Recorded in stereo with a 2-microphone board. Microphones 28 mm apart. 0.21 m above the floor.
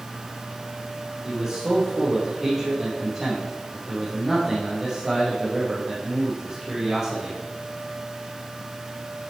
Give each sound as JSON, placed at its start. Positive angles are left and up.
{"t": 1.2, "sound": "a man speaking", "side_deg": -5, "distance_m": 5.5}